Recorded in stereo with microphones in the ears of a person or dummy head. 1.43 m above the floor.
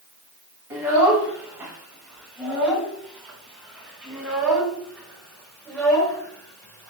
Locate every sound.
0.7 s a child speaking: 15° right (ahead or behind), 7 m; by 6.9 s 10° left (ahead or behind), 5 m